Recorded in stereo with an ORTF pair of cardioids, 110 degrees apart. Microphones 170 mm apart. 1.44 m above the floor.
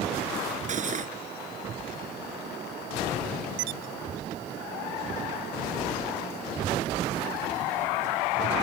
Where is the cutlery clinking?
45° right.